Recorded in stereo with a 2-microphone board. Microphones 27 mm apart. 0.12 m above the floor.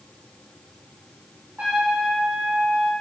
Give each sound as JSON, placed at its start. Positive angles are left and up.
{"t": 1.6, "sound": "a trumpet", "side_deg": -75, "distance_m": 4.0}